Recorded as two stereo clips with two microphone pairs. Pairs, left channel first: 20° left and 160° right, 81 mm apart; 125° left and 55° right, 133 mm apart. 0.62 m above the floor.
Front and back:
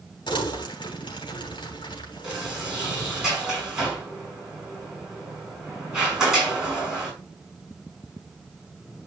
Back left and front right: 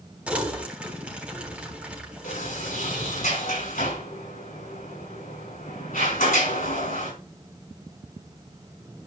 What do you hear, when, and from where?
0.3 s crumpling: 25° left, 3.5 m
2.2 s a sliding door: 120° left, 6 m